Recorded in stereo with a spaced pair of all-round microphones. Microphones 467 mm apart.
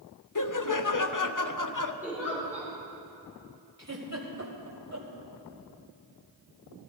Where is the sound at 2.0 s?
5° right (ahead or behind), 4.5 m.